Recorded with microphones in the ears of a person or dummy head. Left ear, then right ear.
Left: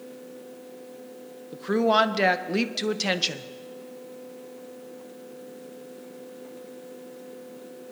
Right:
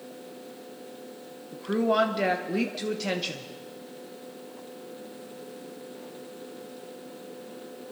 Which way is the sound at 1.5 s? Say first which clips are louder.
Left 3 dB; 30° left (ahead or behind).